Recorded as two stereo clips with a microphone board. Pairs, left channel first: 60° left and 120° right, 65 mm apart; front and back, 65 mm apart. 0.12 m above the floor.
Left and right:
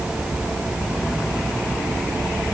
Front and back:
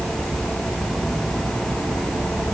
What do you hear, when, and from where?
Only background noise.